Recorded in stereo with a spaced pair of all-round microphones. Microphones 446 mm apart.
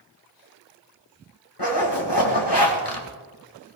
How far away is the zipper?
About 2.5 m.